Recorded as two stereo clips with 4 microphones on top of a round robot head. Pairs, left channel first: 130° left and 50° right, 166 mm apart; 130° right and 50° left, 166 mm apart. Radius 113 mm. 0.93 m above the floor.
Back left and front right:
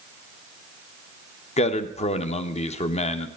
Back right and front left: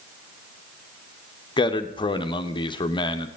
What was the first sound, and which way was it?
A man speaking, 170° left.